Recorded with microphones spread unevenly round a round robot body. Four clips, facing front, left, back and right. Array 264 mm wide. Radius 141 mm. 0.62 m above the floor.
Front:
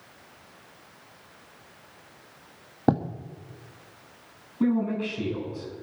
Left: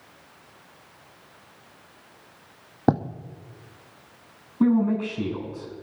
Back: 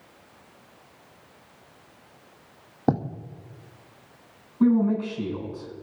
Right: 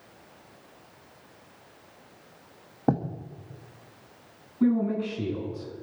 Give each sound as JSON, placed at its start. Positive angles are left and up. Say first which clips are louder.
{"t": 2.9, "sound": "writing", "louder": "left 4 dB, front 1 dB", "azimuth_deg": 65, "distance_m": 1.0}
{"t": 4.6, "sound": "a man speaking", "louder": "left 3 dB, back 4 dB", "azimuth_deg": 85, "distance_m": 7.5}